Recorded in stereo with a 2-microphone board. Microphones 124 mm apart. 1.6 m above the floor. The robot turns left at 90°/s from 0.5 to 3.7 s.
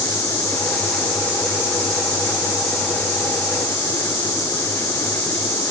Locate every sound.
Only background noise.